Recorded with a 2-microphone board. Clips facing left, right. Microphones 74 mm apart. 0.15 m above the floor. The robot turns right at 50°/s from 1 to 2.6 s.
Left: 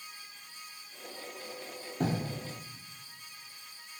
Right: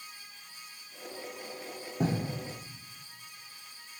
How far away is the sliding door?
I don't hear a sliding door.